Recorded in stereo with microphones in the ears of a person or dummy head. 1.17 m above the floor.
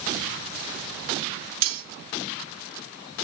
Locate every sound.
1.6 s cutlery clinking: 80° right, 1.6 m